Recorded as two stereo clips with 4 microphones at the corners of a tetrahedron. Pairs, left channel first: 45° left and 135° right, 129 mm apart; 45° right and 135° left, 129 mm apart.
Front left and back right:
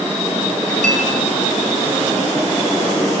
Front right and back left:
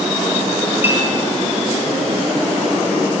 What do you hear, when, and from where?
0.8 s a clink: 150° right, 6 m